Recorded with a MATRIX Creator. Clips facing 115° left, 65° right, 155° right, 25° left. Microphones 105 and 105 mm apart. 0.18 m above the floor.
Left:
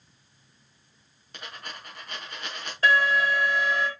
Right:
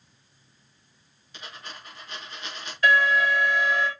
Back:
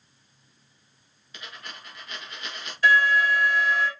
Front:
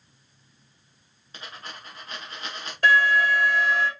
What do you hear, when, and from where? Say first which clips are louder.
1.3 s a dropped coin: left 1 dB, front 2 dB; 80° left, 4 m
2.8 s an alarm: right 1 dB, front 1 dB; 60° left, 6 m